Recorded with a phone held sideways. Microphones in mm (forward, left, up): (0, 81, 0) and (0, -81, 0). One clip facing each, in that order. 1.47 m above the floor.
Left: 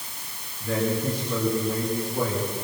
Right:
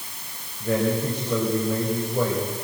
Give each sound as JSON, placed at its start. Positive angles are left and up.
{"t": 0.6, "sound": "a man speaking", "side_deg": -70, "distance_m": 6.0}